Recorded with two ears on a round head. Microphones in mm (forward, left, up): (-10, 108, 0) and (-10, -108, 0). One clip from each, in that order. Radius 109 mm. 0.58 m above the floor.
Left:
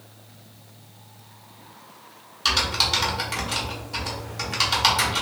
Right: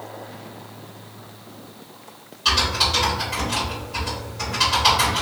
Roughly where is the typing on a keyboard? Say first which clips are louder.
Right 2 dB; left.